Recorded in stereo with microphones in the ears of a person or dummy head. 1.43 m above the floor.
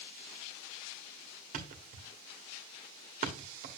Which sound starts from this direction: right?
A thud, at 1.5 s.